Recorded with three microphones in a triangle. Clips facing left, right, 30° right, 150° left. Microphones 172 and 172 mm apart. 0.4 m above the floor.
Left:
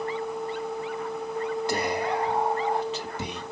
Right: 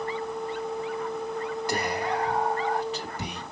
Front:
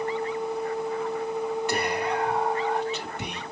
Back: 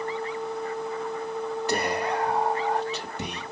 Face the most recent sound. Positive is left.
turn(degrees=135)